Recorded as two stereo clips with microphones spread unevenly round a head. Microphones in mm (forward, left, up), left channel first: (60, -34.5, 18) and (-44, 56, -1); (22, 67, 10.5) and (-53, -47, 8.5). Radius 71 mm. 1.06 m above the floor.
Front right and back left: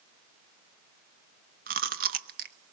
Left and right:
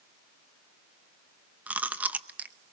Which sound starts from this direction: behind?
Chewing, at 1.7 s.